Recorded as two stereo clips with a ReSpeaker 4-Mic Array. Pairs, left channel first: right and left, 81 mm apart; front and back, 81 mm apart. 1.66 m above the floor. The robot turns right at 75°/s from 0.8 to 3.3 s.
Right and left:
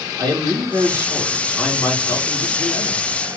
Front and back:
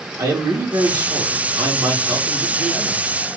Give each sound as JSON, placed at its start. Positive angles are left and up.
{"t": 0.2, "sound": "a man speaking", "azimuth_deg": 125, "distance_m": 2.0}